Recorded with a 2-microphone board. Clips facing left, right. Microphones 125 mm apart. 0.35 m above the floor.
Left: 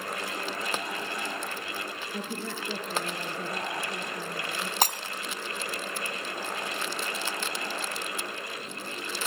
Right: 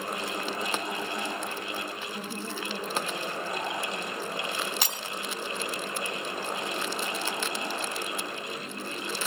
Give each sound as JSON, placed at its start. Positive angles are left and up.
{"t": 2.1, "sound": "a woman speaking", "side_deg": 70, "distance_m": 6.0}
{"t": 4.8, "sound": "breaking glass", "side_deg": 45, "distance_m": 1.1}